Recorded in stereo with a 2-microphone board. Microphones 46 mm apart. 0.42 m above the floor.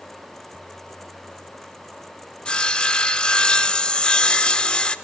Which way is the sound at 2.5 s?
20° left (ahead or behind).